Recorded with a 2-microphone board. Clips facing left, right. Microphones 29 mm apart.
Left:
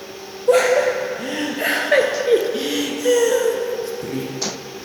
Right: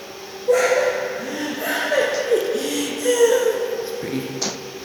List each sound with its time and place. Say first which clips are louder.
0.5 s laughter: left 2 dB; 70° left (ahead or behind), 3.5 m; by 4.3 s 40° right (ahead or behind), 2.0 m